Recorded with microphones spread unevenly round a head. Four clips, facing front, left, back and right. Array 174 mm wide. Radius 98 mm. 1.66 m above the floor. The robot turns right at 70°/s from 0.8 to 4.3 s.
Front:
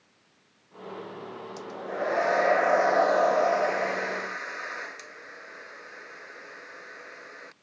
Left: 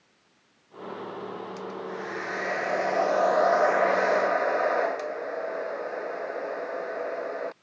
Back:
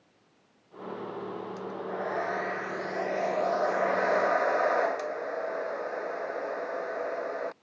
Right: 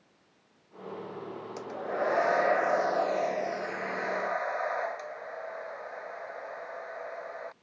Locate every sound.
1.6 s a hair dryer: 75° right; by 7.5 s 115° left